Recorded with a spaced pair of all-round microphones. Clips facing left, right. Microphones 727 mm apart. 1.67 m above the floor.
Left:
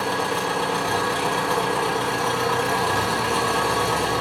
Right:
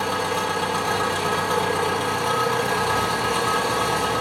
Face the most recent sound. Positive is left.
turn(degrees=-20)  # may be behind; listen again after turning